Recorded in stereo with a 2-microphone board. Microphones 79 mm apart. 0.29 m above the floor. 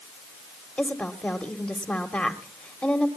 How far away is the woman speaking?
About 1.5 m.